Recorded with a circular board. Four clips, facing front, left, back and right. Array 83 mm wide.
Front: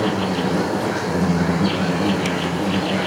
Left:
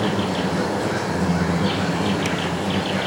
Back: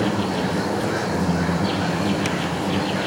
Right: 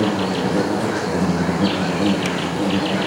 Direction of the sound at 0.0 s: 80° right.